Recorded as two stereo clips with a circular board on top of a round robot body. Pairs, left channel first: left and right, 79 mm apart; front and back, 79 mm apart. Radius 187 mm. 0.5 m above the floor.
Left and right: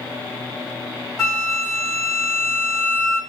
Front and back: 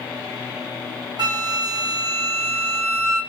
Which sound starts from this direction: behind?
A flute, at 1.2 s.